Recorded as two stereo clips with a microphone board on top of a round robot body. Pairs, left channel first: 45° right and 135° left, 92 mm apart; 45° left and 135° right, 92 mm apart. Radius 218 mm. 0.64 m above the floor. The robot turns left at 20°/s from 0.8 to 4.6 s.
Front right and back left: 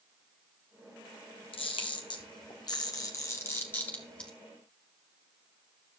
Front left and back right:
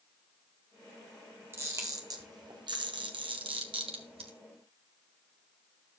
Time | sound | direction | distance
1.5 | a camera shutter | 70° right | 1.1 m